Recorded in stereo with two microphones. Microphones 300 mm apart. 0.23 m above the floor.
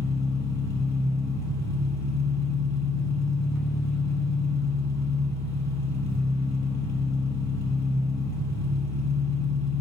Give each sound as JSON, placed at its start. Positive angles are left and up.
{"t": 0.0, "sound": "an engine running", "side_deg": -60, "distance_m": 1.0}